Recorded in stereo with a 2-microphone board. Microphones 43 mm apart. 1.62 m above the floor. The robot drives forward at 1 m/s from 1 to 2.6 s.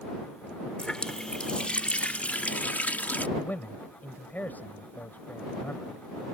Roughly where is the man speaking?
Left.